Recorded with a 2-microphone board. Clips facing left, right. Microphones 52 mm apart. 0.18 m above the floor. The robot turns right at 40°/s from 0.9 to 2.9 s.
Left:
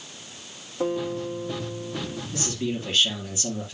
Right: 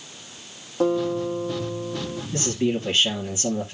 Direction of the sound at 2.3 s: 40° right (ahead or behind).